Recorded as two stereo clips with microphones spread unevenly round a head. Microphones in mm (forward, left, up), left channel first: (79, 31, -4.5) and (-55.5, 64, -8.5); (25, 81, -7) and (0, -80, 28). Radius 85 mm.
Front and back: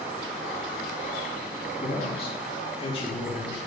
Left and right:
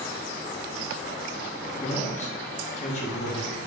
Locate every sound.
1.8 s a man speaking: 35° left, 2.5 m